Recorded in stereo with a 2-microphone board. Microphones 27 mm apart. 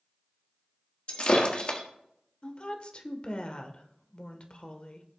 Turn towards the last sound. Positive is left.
turn(degrees=45)  # may be behind; listen again after turning